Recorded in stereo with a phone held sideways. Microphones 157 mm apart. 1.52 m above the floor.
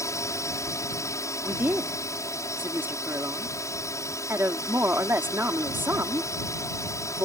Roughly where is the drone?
Centre.